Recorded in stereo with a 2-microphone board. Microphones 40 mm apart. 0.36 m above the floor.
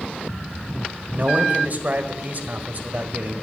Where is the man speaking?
45° right (ahead or behind), 1.9 m.